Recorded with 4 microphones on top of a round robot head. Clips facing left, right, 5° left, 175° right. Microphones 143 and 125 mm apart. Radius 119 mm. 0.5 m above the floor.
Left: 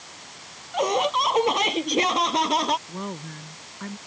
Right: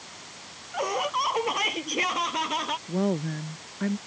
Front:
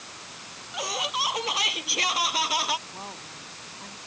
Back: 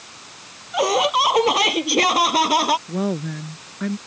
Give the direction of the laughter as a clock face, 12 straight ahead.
7 o'clock.